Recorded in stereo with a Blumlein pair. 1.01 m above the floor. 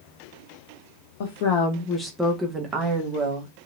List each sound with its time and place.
1.2 s a woman speaking: 55° left, 0.7 m; by 3.5 s 40° right, 1.2 m